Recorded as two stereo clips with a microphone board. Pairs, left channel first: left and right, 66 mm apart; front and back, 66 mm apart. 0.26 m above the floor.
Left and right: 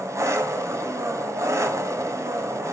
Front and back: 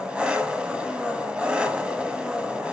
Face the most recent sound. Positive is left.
turn(degrees=-110)